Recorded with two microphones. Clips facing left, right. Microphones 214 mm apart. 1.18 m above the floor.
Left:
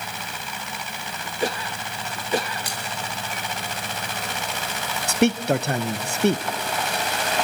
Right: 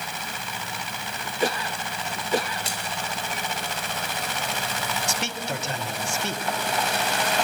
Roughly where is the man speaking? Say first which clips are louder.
Left 11 dB; left.